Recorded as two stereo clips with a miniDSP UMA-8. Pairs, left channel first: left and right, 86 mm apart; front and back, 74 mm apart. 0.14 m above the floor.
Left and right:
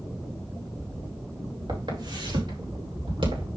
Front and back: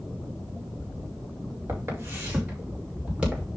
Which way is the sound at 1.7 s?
120° right.